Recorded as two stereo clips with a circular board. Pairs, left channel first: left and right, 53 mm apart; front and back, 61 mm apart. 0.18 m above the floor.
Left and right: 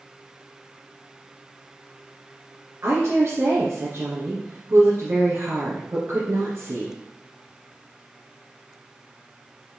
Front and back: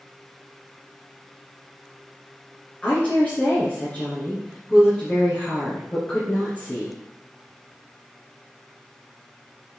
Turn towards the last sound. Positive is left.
turn(degrees=-65)